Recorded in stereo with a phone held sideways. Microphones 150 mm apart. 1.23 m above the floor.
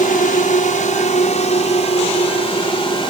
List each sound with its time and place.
0.0 s a drone: 65° left (ahead or behind); by 3.1 s 35° left (ahead or behind)